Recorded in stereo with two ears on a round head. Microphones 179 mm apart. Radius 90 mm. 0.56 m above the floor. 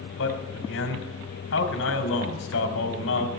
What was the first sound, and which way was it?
A man speaking, 70° left (ahead or behind).